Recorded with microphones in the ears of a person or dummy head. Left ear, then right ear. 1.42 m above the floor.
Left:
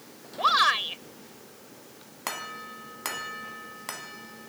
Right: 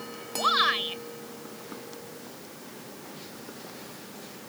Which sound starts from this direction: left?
A shout, at 0.4 s.